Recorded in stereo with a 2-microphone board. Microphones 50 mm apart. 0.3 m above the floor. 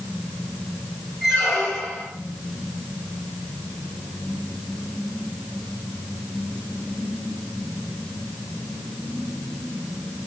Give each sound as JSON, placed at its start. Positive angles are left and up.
{"t": 1.2, "sound": "a squeak", "side_deg": 5, "distance_m": 1.1}